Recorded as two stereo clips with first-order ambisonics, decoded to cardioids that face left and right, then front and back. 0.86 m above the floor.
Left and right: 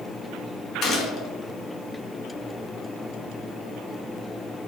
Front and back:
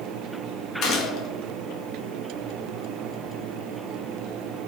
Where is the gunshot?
40° left, 0.6 m.